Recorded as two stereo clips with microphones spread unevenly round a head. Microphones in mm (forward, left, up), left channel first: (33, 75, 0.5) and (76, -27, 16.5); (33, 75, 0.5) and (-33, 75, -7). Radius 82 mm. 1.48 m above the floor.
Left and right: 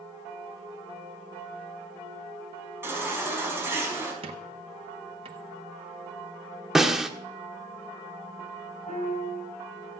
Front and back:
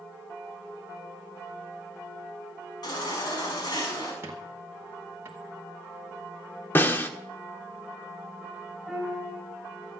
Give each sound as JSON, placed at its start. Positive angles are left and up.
{"t": 2.8, "sound": "a baby crying", "azimuth_deg": 0, "distance_m": 6.0}
{"t": 4.2, "sound": "a squeak", "azimuth_deg": -110, "distance_m": 1.0}
{"t": 6.8, "sound": "a snare drum", "azimuth_deg": 5, "distance_m": 1.3}
{"t": 8.9, "sound": "a piano", "azimuth_deg": 80, "distance_m": 9.5}